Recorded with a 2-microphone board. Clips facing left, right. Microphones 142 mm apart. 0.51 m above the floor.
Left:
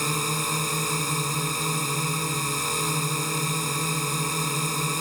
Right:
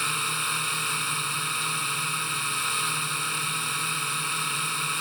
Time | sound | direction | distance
0.0 | a drone | 35° left (ahead or behind) | ?